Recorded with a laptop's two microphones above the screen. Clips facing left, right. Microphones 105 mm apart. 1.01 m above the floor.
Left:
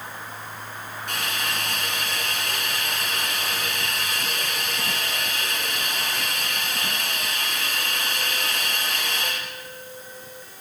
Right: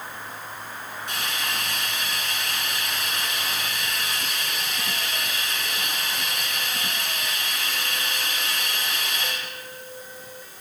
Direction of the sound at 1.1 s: 65° left (ahead or behind).